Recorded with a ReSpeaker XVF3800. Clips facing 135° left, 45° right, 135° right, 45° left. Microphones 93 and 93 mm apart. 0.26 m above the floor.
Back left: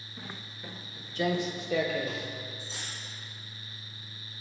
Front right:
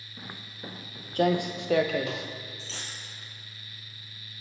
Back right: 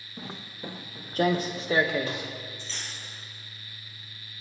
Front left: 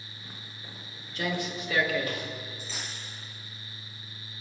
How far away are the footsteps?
About 1.4 m.